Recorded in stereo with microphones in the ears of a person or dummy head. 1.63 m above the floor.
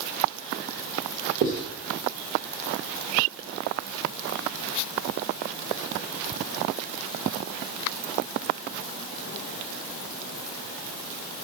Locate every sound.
1.4 s writing: 40° right (ahead or behind), 1.7 m